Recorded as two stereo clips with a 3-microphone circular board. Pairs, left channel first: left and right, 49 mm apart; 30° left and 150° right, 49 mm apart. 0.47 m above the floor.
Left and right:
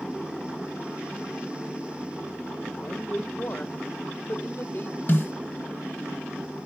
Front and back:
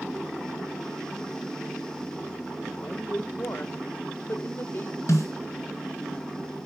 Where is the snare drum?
45° left, 2.5 m.